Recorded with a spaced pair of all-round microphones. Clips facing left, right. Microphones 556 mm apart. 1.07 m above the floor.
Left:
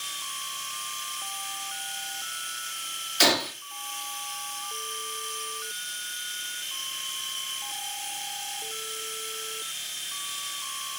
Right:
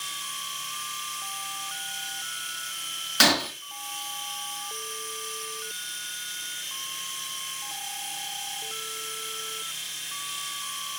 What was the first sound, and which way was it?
A machine running, 75° right (ahead or behind).